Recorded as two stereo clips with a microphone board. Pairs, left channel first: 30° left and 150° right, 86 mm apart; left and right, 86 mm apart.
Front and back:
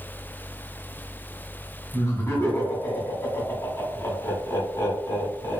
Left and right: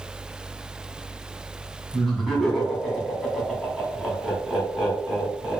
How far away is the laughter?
About 1.5 m.